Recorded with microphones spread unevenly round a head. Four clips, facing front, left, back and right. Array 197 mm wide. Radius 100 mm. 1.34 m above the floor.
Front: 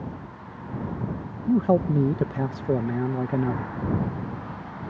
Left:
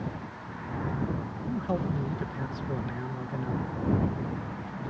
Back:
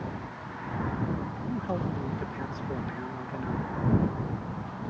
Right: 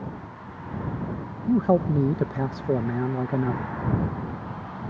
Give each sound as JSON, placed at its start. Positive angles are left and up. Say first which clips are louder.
{"t": 1.5, "sound": "a man speaking", "louder": "right 10 dB, front 12 dB", "azimuth_deg": -40}